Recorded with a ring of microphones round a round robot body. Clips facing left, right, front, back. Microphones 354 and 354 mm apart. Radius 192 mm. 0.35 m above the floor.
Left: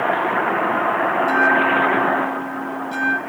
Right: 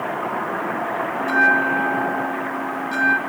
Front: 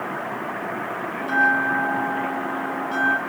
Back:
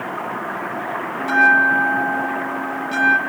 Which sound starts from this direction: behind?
A bell, at 1.2 s.